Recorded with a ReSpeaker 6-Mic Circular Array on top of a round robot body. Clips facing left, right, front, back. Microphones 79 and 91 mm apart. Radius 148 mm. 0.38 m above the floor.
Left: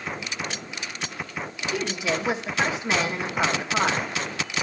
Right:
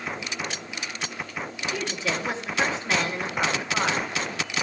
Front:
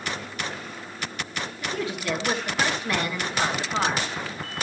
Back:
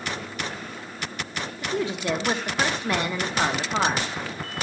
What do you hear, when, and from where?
1.6 s a woman speaking: 155° left, 1.3 m